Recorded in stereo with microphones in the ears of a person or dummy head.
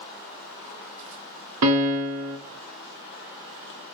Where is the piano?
80° right, 0.6 m.